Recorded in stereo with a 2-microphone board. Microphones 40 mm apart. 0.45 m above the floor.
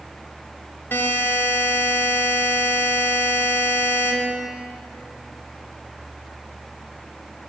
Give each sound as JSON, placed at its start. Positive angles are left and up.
{"t": 0.9, "sound": "a buzzer", "side_deg": 70, "distance_m": 1.2}